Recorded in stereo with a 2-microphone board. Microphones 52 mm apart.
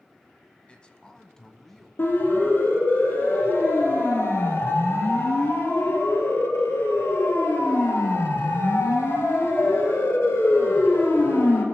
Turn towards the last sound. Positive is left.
turn(degrees=65)  # may be behind; listen again after turning